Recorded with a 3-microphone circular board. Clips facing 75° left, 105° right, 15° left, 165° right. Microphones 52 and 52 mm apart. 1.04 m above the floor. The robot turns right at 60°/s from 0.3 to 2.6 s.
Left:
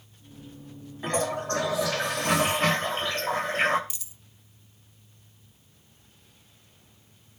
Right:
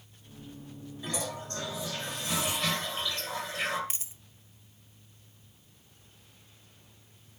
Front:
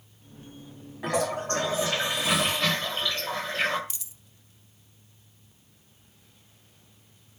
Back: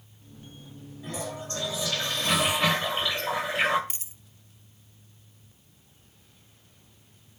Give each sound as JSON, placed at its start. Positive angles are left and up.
{"t": 1.0, "sound": "a toilet flushing", "azimuth_deg": 25, "distance_m": 1.6}
{"t": 3.9, "sound": "a dropped coin", "azimuth_deg": -140, "distance_m": 0.7}